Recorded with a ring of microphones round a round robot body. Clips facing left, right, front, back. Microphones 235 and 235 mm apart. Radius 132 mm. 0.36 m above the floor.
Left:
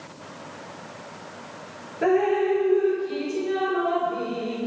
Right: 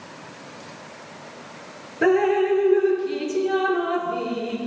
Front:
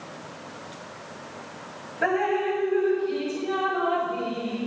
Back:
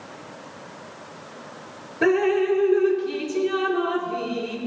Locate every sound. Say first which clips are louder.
2.0 s dripping: right 2 dB, back 6 dB; 150° right, 5.5 m